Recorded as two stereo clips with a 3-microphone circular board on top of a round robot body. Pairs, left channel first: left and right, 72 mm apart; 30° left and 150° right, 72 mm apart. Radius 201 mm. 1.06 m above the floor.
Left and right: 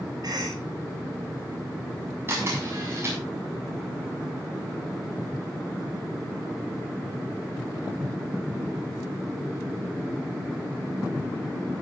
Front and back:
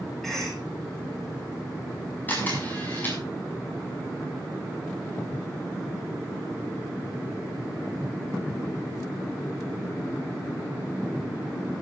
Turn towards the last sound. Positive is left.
turn(degrees=-35)